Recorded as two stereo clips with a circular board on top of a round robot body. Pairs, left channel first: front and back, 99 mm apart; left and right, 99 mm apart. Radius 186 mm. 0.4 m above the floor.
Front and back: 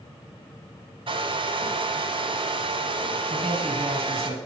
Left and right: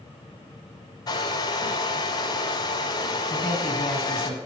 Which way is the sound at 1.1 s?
140° left.